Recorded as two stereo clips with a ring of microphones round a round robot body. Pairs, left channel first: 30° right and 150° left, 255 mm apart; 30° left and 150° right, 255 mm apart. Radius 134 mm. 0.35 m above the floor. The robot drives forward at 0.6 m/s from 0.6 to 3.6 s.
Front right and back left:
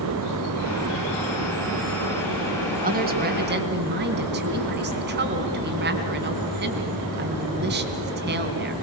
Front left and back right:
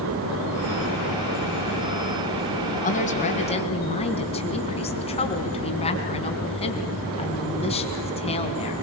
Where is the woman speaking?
90° left, 4 m; by 8.7 s 100° left, 4 m.